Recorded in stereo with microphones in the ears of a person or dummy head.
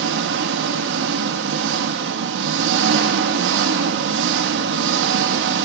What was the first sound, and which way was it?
An engine running, 70° right (ahead or behind).